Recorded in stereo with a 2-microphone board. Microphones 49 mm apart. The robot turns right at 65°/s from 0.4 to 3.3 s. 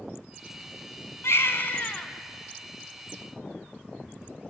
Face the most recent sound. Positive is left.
turn(degrees=-125)